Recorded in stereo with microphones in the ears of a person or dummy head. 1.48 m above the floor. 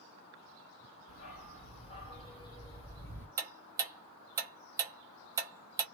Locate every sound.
1.1 s a dog barking: 50° left (ahead or behind), 1.9 m; by 3.3 s 10° left (ahead or behind), 2 m
3.4 s ticking: 15° right (ahead or behind), 0.6 m